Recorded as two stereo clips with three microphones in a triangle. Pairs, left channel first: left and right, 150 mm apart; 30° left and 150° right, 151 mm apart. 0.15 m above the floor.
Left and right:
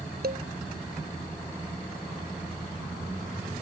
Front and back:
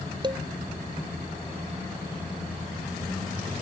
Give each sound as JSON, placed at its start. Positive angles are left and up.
{"t": 0.2, "sound": "dishes clattering", "azimuth_deg": -90}